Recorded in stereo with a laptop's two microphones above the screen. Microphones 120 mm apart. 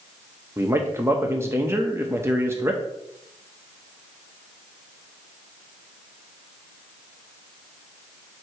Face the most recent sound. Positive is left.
turn(degrees=-20)  # may be behind; listen again after turning